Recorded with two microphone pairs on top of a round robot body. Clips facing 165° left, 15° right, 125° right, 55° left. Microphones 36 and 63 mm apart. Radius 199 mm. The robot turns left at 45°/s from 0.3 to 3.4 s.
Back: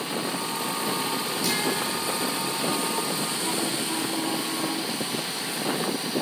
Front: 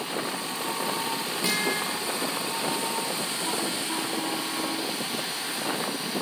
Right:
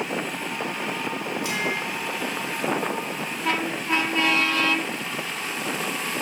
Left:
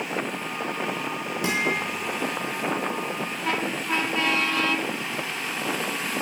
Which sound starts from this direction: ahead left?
A guitar, at 1.4 s.